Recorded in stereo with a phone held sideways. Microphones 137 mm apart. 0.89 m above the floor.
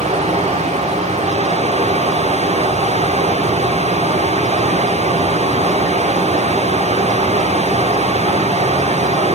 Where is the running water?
55° right (ahead or behind), 1.7 m.